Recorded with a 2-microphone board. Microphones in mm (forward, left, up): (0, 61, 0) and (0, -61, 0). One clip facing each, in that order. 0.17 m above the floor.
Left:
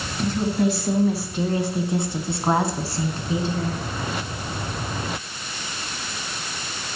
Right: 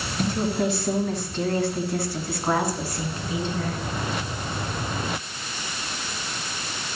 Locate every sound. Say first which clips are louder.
0.2 s a woman speaking: left 2 dB; 10° right (ahead or behind), 1.9 m; by 3.8 s 35° left (ahead or behind), 2.5 m